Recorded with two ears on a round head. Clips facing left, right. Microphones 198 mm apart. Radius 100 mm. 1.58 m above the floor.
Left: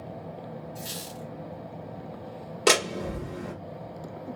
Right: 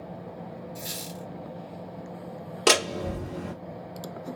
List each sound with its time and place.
0.8 s a squeak: 30° right (ahead or behind), 2 m
2.7 s a door slam: 5° right (ahead or behind), 1.6 m